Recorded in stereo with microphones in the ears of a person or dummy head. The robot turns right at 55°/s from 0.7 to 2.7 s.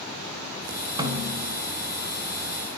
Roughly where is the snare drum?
Behind right.